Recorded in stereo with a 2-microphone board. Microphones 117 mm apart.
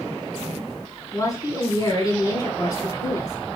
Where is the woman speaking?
30° left (ahead or behind), 1.8 m.